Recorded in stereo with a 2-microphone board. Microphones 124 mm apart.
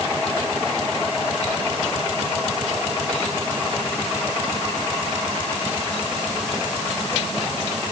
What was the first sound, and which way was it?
Only background noise.